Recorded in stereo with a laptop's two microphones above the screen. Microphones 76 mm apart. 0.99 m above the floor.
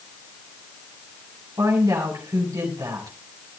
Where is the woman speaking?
60° right (ahead or behind), 7.5 m.